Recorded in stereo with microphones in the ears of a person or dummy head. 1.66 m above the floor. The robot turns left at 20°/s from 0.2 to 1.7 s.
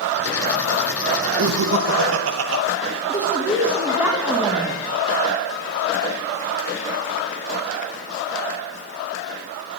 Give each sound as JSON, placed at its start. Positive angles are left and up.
{"t": 1.4, "sound": "laughter", "side_deg": -80, "distance_m": 1.8}
{"t": 3.1, "sound": "a woman speaking", "side_deg": -10, "distance_m": 3.0}